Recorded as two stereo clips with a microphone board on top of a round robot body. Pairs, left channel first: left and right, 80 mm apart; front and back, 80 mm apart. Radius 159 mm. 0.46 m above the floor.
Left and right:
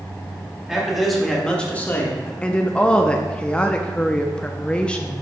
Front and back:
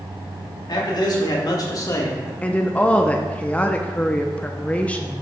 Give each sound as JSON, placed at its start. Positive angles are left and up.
{"t": 0.7, "sound": "a man speaking", "azimuth_deg": -10, "distance_m": 2.0}
{"t": 2.4, "sound": "a woman speaking", "azimuth_deg": 35, "distance_m": 0.7}